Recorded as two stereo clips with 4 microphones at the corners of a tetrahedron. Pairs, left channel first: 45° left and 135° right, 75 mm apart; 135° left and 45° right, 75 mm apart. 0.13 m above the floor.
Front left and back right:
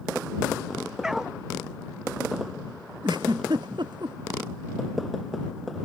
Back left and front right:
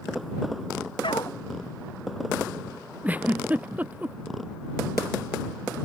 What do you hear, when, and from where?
1.0 s a dog barking: 140° left
3.0 s a giggle: 115° right